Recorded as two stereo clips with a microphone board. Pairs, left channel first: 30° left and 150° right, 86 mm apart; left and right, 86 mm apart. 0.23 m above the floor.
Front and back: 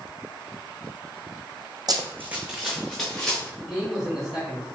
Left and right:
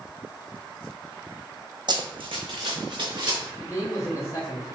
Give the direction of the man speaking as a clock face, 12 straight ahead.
8 o'clock.